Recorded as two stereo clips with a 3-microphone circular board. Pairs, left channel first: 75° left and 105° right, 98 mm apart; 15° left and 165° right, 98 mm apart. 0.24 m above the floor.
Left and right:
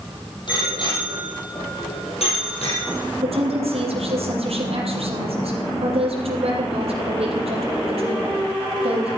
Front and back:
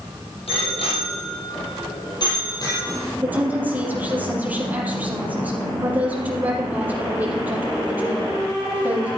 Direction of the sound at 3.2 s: 90° right.